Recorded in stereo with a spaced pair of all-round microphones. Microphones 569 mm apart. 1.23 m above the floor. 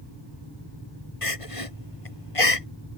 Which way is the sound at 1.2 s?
70° left (ahead or behind).